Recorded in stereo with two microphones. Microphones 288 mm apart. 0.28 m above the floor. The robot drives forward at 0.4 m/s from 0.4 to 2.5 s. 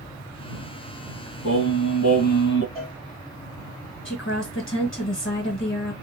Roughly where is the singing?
Left.